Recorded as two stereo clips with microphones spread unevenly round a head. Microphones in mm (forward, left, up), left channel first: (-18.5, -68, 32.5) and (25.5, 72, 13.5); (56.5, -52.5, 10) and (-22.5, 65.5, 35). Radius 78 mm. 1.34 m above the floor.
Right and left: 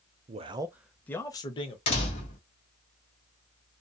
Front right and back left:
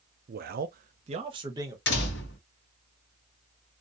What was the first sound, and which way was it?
A man speaking, 105° left.